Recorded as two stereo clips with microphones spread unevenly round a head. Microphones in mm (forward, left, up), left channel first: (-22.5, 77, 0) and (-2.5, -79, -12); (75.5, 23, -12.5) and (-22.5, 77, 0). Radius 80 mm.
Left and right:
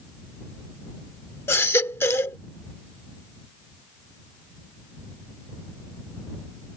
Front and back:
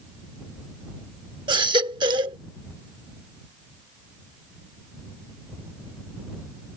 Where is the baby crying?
160° left.